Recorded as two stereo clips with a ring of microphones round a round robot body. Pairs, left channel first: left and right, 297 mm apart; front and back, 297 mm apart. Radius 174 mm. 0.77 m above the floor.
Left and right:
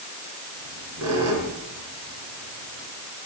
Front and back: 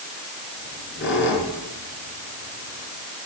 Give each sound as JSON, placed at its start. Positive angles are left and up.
{"t": 0.6, "sound": "a squeak", "azimuth_deg": -50, "distance_m": 5.0}